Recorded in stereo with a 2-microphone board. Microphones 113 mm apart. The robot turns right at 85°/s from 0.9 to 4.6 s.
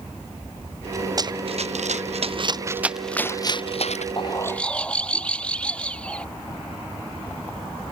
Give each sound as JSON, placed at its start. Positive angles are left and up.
{"t": 1.2, "sound": "running footsteps", "side_deg": -35}
{"t": 4.2, "sound": "a bird", "azimuth_deg": 135}